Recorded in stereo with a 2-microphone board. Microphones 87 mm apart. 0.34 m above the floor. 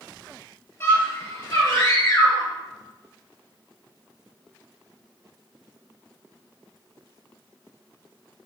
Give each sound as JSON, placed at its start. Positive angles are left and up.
{"t": 0.8, "sound": "a scream", "side_deg": 35, "distance_m": 7.5}